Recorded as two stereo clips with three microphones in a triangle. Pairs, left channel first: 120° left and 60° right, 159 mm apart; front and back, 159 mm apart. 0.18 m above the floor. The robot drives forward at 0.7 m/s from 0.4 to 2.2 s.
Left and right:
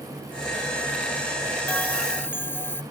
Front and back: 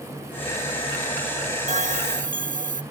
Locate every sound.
1.7 s a bell: 160° right; by 2.8 s 165° right